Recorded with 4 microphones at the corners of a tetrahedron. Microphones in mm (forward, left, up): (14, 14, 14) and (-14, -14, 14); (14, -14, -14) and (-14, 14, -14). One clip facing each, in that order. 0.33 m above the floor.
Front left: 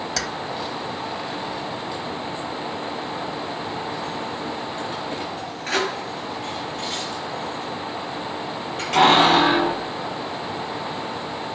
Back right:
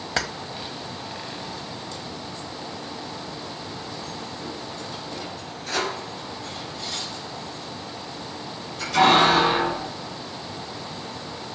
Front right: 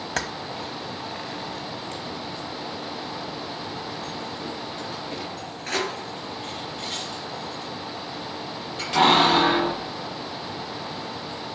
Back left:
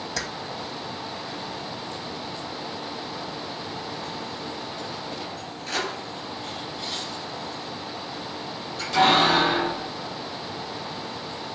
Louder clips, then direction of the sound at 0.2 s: Back right 3 dB, front right 4 dB; 75° right.